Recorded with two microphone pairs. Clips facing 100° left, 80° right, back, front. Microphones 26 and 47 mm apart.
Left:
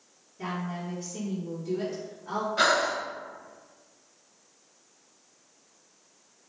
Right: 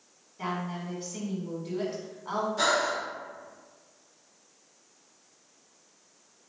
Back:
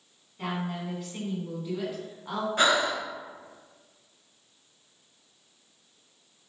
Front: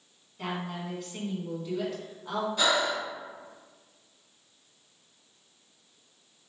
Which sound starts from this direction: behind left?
Breathing, at 2.6 s.